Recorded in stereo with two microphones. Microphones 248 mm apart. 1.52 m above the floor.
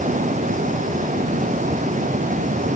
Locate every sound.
Only background noise.